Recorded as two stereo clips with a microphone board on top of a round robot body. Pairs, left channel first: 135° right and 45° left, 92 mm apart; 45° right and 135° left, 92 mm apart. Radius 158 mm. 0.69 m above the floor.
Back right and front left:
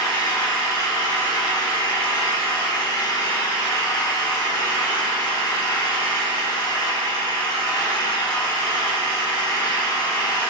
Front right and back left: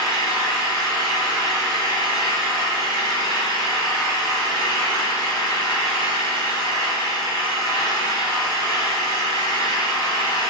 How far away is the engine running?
About 3 m.